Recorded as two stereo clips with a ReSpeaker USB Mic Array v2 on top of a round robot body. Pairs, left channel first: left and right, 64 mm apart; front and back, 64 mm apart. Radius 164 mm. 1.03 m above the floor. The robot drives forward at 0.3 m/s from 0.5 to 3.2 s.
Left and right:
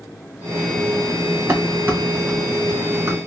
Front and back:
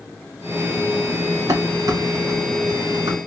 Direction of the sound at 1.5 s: 145° right.